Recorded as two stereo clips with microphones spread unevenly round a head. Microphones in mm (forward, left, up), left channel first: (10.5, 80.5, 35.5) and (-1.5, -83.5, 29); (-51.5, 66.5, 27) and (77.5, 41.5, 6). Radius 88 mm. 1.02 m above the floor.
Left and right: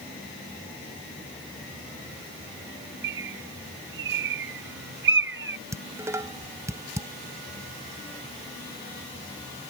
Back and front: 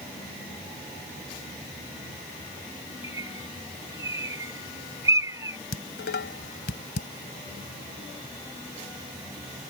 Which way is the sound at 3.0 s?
85° right.